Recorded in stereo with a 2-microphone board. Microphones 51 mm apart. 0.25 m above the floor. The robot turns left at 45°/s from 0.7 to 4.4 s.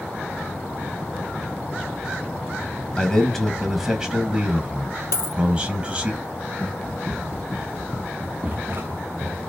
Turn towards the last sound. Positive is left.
turn(degrees=-65)  # may be behind; listen again after turning